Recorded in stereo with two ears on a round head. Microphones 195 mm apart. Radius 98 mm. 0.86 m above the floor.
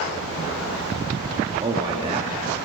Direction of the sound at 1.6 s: 25° right (ahead or behind).